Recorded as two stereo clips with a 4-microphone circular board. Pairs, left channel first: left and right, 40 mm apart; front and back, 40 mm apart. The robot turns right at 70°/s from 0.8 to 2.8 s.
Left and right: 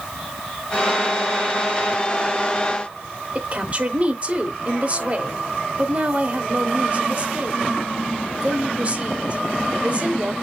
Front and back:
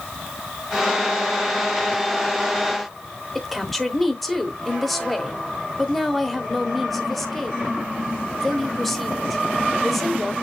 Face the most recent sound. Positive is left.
turn(degrees=-85)